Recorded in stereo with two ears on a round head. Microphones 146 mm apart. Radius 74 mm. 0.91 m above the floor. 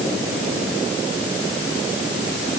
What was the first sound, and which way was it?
Only background noise.